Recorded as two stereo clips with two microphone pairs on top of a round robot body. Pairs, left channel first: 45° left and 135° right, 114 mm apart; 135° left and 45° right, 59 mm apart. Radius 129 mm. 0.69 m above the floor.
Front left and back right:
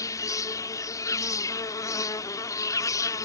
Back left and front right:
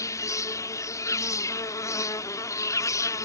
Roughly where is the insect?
Left.